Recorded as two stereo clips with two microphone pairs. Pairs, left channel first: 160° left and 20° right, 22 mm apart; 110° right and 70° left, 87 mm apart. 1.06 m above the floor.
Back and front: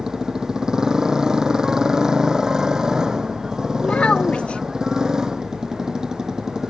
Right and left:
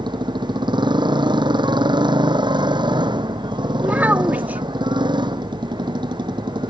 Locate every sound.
0.0 s a motorcycle: 40° left
3.8 s a child speaking: 140° left